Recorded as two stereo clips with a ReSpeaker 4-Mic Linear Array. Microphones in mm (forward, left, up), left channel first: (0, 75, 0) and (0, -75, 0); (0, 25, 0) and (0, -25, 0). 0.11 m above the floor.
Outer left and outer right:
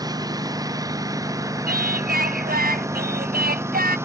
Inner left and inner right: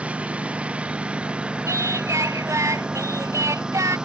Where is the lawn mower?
25° right (ahead or behind); by 4.1 s 15° right (ahead or behind).